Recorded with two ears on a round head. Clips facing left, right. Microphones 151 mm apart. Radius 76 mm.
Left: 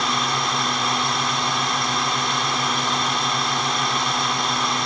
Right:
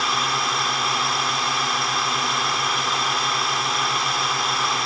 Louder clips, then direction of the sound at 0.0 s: Left 1 dB; centre (ahead or behind).